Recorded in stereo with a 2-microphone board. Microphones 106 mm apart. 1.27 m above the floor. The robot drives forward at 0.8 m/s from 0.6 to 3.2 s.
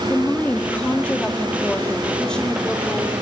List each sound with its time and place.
0.1 s a woman speaking: 10° left (ahead or behind), 2.5 m; by 3.1 s 5° left (ahead or behind), 4.5 m